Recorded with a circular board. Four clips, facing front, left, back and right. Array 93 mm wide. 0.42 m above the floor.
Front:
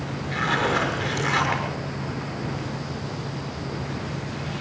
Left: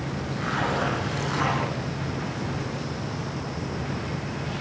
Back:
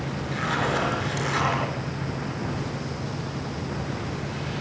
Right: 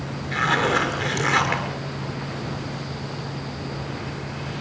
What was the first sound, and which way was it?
A zipper, 75° right.